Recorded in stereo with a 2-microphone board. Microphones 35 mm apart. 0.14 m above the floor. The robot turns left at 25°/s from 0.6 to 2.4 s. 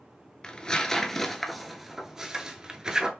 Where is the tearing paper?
20° left (ahead or behind), 0.6 m; by 3.1 s 20° right (ahead or behind), 0.6 m.